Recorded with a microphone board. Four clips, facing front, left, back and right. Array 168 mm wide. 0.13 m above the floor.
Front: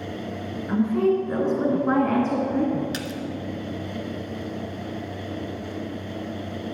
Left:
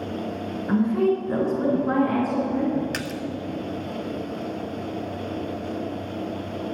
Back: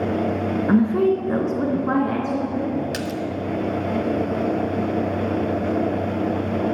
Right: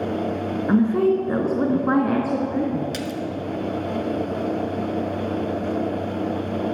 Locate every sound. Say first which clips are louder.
0.7 s a woman speaking: right 3 dB, back 3 dB; 150° right, 1.8 m; by 2.8 s 50° right, 1.9 m
2.9 s a splash: right 3 dB, back 5 dB; 110° left, 0.8 m